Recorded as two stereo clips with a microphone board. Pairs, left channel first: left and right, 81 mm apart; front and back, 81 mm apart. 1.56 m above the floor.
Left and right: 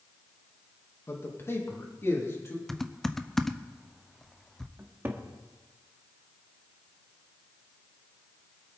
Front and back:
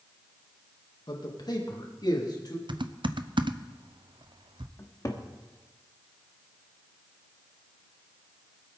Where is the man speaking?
30° left, 2 m.